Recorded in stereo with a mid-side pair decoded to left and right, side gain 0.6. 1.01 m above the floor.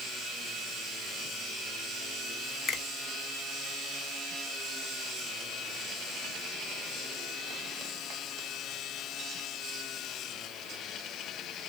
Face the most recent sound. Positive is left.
turn(degrees=30)